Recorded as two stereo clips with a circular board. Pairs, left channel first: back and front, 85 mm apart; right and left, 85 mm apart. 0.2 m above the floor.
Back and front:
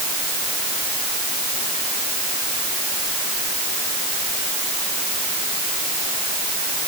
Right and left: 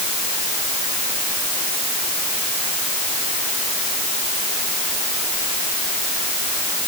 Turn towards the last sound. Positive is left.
No sound to turn to.